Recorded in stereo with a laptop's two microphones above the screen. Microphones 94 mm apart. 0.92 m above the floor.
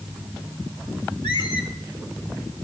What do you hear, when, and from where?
1.2 s a squeak: 60° left (ahead or behind), 3 m